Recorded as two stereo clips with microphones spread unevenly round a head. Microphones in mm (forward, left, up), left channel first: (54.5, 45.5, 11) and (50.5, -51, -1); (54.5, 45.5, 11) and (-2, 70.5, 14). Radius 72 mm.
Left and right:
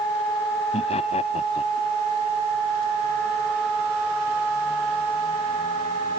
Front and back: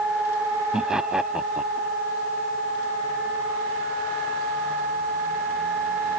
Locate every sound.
0.7 s laughter: 80° left